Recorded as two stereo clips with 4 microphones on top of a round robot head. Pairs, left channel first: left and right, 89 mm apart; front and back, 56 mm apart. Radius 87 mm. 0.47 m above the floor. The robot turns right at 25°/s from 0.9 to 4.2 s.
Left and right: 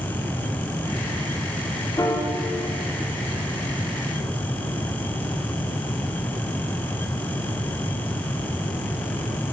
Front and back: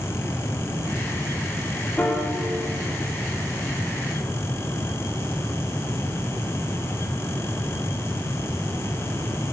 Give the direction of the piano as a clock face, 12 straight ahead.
10 o'clock.